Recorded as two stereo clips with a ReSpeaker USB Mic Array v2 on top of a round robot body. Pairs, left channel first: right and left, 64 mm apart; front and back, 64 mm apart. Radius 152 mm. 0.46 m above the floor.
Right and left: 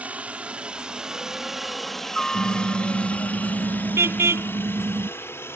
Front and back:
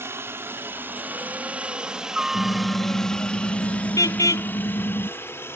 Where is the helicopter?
150° left; by 5.6 s 45° right.